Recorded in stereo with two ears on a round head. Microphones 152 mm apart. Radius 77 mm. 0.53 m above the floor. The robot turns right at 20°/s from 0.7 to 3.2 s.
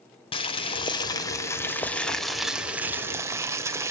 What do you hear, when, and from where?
0.3 s boiling: 145° left, 1.5 m; by 3.9 s 165° right, 1.5 m